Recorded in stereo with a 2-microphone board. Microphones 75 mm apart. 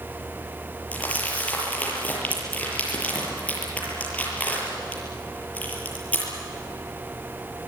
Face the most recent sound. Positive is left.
turn(degrees=20)  # may be behind; listen again after turning